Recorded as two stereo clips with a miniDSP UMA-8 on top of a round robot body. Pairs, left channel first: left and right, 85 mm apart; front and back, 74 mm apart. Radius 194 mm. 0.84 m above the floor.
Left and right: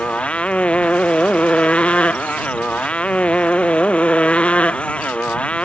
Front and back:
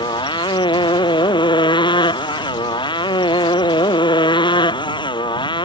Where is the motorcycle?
15° left.